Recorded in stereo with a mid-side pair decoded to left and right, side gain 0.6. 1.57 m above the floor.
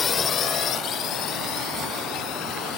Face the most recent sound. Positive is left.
turn(degrees=65)